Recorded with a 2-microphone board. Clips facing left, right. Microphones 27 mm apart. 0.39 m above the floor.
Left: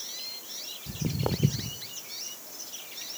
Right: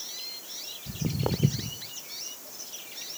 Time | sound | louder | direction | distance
0.9 | footsteps | right 1 dB | 5° left (ahead or behind) | 0.6 m